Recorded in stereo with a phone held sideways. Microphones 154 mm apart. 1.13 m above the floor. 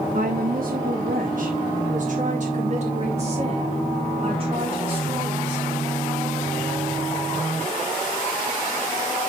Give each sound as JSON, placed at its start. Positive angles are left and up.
{"t": 0.1, "sound": "a woman speaking", "side_deg": -60, "distance_m": 1.1}